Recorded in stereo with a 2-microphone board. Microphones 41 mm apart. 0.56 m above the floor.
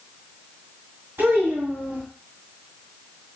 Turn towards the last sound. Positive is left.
turn(degrees=-70)  # may be behind; listen again after turning